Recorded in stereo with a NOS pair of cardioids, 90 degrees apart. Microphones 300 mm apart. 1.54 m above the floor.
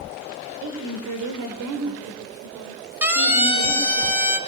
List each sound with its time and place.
0.6 s a woman speaking: 65° right, 5.5 m
3.0 s a siren: 5° right, 8 m